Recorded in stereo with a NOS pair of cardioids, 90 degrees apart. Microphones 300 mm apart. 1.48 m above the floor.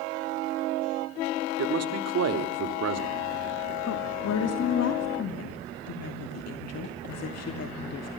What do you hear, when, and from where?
1.6 s a man speaking: 55° right, 3.5 m
3.9 s a woman speaking: 55° left, 2.5 m